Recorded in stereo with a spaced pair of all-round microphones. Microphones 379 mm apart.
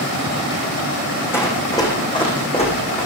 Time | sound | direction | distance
1.3 | running footsteps | 5° left (ahead or behind) | 4 m